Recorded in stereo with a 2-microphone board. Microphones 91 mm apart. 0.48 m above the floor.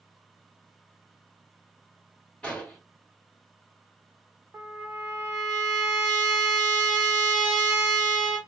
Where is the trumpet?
10° right (ahead or behind), 1.0 m.